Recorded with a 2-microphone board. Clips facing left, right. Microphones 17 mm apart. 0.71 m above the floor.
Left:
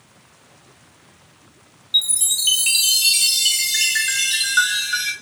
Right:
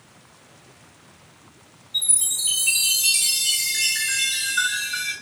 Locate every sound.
1.9 s a chime: 75° left (ahead or behind), 0.6 m